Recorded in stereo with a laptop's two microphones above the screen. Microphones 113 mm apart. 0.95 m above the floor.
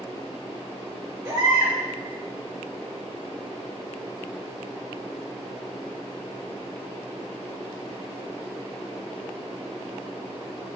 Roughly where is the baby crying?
Right.